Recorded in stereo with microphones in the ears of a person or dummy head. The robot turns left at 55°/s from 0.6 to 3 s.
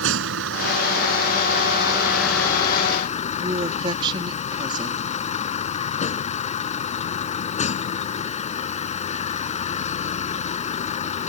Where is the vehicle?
90° right; by 11.3 s 140° left.